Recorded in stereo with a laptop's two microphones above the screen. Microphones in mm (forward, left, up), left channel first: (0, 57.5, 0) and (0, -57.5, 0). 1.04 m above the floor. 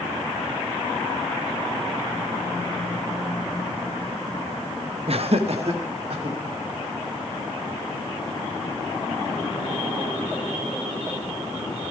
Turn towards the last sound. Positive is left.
turn(degrees=-60)  # may be behind; listen again after turning